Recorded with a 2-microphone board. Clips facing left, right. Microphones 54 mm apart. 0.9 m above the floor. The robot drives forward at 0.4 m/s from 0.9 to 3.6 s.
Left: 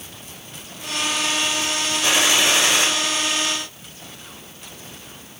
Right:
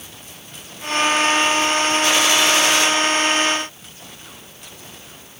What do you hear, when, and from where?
2.0 s a gunshot: 25° left (ahead or behind), 0.7 m; by 2.9 s 20° left (ahead or behind), 0.8 m